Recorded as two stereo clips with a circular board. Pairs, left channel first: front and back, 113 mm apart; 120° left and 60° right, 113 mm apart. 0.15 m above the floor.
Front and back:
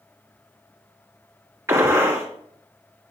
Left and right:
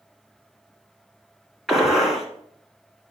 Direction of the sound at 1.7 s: 150° right.